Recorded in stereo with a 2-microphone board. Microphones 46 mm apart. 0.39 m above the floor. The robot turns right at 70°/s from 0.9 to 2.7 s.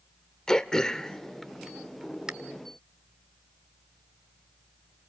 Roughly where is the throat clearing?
Centre.